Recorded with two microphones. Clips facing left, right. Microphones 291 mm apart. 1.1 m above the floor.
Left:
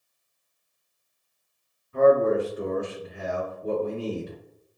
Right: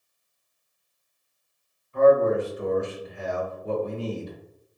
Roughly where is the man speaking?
Left.